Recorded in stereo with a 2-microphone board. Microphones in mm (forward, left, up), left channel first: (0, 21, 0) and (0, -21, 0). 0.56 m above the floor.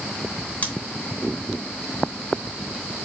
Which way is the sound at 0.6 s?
45° left (ahead or behind).